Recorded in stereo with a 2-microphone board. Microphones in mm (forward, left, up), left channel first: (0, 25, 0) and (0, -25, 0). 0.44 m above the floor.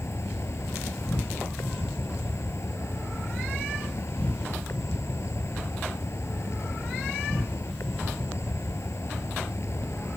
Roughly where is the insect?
Left.